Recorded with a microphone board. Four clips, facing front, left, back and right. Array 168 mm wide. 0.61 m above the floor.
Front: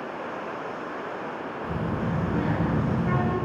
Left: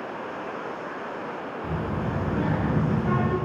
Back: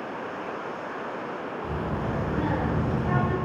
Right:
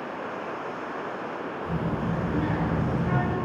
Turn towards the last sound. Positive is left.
turn(degrees=70)